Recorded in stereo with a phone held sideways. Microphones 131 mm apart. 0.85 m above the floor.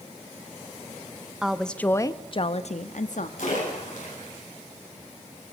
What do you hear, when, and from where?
1.4 s a woman speaking: 5° right (ahead or behind), 1.0 m; by 3.3 s 70° left (ahead or behind), 1.3 m
3.4 s a splash: 85° left, 10 m